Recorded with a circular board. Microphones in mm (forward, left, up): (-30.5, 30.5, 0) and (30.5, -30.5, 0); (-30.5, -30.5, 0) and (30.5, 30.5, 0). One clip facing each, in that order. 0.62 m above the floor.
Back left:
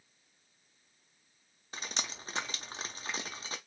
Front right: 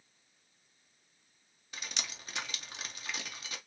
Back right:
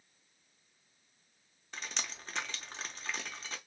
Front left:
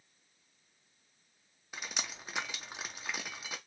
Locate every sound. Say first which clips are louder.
1.7 s dripping: back left 3 dB, front left 1 dB; 120° left, 0.6 m